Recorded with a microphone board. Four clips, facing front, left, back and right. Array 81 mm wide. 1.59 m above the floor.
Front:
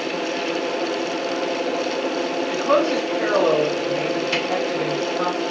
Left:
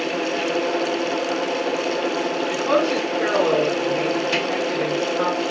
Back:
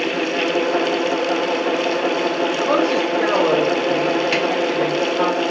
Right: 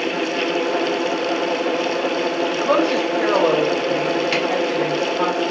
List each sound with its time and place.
2.5 s a woman speaking: 140° right, 2.5 m
4.3 s a camera shutter: 145° right, 3 m